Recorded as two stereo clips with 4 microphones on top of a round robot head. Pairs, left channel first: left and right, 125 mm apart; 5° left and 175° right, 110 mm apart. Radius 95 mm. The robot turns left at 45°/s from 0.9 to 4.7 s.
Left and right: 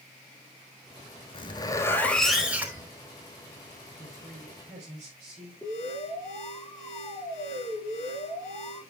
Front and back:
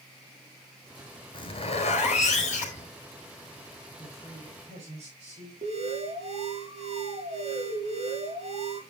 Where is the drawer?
No drawer in this recording.